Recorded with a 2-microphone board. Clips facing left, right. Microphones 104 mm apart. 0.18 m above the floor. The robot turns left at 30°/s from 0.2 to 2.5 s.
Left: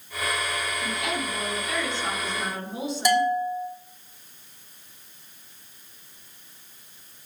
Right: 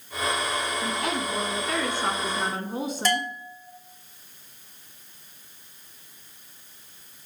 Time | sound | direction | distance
0.8 | a woman speaking | 50° right | 2 m
3.0 | a bell | 15° left (ahead or behind) | 2.5 m